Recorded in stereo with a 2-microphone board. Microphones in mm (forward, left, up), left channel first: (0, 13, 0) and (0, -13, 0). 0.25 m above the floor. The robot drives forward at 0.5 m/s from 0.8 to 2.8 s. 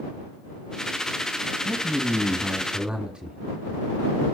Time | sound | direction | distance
1.6 | a man speaking | 40° right (ahead or behind) | 1.4 m